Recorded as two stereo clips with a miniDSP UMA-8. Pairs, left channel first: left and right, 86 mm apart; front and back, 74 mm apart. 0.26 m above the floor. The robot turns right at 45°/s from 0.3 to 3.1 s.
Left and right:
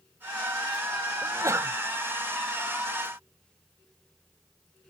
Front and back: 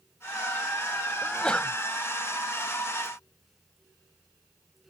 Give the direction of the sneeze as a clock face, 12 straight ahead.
3 o'clock.